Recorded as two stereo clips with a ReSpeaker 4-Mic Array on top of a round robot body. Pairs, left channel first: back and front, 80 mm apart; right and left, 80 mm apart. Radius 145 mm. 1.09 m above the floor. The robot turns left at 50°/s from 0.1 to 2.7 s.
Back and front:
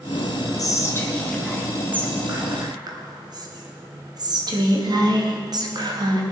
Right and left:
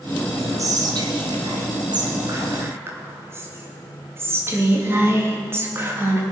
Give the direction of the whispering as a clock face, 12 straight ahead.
7 o'clock.